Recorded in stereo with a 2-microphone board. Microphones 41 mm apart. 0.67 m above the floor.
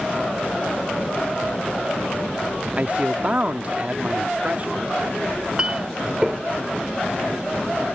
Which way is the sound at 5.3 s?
25° right (ahead or behind).